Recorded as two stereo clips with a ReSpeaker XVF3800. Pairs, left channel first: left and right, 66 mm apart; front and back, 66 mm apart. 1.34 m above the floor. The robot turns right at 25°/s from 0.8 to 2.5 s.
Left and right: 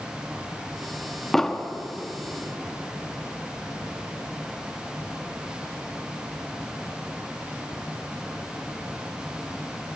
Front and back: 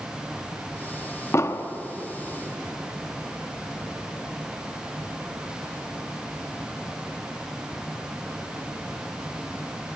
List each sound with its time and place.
1.3 s an explosion: 5° left, 0.9 m; by 1.7 s 15° left, 0.9 m